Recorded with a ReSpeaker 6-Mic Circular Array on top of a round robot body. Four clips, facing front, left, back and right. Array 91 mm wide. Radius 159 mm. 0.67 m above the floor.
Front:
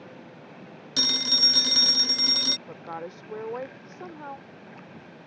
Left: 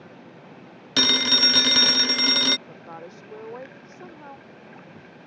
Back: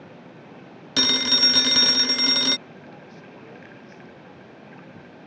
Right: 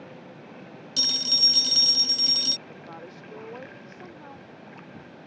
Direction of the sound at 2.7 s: 10° left.